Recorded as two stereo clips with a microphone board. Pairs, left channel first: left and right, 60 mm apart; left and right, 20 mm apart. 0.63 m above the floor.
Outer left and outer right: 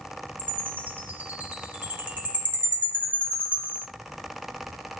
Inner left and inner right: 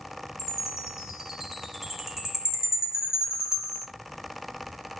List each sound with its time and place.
0.4 s a chime: 30° right (ahead or behind), 1.7 m